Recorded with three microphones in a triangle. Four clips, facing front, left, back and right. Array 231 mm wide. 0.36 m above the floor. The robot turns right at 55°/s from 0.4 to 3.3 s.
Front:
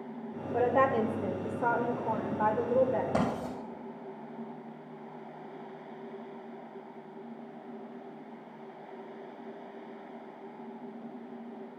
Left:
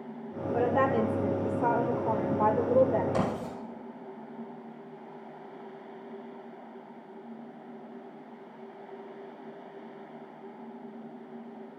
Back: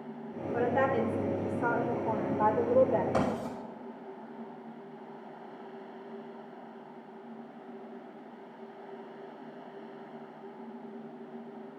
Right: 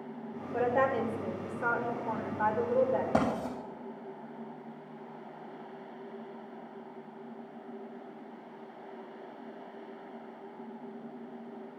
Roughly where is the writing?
Ahead right.